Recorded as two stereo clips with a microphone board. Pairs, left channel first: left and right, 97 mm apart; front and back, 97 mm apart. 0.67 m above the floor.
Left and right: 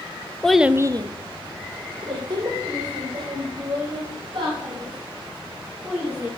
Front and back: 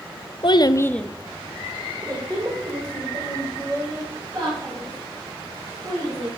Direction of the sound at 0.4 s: 10° left.